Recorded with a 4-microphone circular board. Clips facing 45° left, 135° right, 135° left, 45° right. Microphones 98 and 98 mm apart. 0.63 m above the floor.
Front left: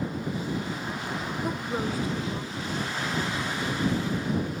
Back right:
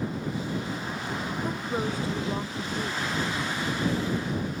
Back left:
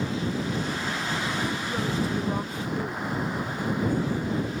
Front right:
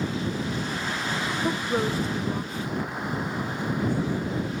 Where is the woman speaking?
30° right; by 4.5 s 170° left.